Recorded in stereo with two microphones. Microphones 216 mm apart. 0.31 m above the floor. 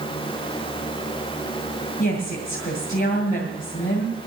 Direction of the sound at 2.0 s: 45° left (ahead or behind).